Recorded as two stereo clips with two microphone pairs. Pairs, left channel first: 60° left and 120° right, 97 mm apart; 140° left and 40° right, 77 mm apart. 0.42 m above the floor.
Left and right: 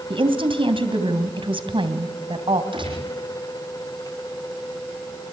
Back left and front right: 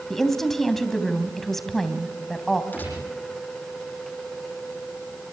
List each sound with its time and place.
0.1 s a woman speaking: 135° right, 2.5 m
2.7 s a gunshot: 150° right, 9.5 m